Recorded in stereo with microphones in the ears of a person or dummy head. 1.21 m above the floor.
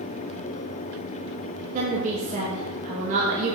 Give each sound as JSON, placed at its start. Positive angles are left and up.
{"t": 1.7, "sound": "a woman speaking", "side_deg": -35, "distance_m": 1.3}